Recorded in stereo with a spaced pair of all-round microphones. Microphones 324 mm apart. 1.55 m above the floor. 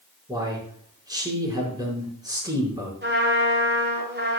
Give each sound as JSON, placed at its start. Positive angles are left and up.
{"t": 0.3, "sound": "a man speaking", "side_deg": -10, "distance_m": 5.0}
{"t": 3.0, "sound": "a trumpet", "side_deg": -35, "distance_m": 5.0}